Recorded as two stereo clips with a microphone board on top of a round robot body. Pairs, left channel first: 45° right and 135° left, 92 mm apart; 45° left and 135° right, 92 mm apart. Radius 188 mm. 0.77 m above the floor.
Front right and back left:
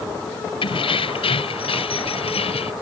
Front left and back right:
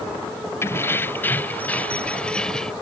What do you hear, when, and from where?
0.6 s keys jangling: 20° right; by 2.7 s 40° right